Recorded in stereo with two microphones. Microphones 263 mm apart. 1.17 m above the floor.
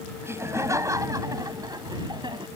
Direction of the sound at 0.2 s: 10° right (ahead or behind).